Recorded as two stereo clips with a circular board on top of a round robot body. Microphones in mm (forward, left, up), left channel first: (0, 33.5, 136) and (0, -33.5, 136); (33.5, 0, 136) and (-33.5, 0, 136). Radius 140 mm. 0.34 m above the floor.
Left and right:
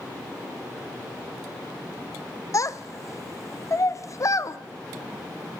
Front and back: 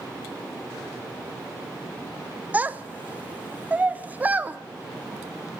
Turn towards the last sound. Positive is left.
turn(degrees=115)